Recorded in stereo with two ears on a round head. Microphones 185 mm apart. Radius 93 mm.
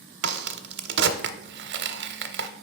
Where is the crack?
55° right (ahead or behind), 0.6 m.